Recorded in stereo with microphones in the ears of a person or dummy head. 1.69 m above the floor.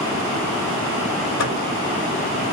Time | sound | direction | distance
1.4 | a microwave | 70° left (ahead or behind) | 5 m